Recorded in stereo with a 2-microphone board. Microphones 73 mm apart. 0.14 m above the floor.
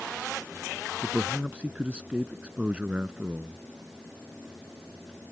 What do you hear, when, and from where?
1.0 s a man speaking: 15° right (ahead or behind)